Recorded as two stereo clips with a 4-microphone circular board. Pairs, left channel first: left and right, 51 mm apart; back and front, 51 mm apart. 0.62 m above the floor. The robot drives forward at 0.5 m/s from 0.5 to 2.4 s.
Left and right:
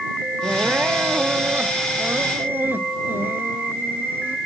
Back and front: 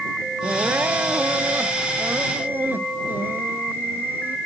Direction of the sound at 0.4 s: 35° right.